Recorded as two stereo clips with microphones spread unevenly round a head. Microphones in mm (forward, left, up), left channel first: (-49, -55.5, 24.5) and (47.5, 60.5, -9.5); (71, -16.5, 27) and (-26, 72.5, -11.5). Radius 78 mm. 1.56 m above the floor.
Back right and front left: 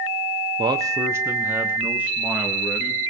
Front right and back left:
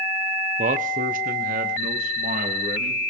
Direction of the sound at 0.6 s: 115° left.